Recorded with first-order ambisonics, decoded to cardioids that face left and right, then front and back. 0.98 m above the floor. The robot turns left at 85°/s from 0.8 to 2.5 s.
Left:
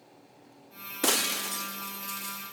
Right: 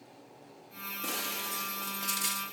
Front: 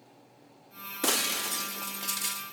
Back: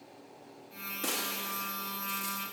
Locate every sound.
1.0 s breaking glass: 60° left, 0.5 m; by 2.4 s 60° right, 0.5 m